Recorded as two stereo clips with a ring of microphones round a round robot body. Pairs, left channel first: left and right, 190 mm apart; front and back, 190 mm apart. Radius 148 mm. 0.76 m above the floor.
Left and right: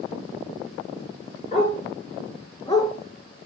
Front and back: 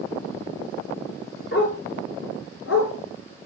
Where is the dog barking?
35° left, 3 m; by 2.9 s 15° left, 2.5 m.